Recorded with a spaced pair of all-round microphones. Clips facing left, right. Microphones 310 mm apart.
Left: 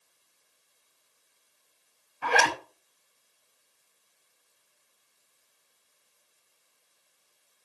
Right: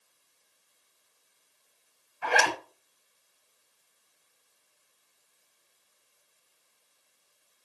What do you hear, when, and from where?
2.2 s a zipper: 45° left (ahead or behind), 6 m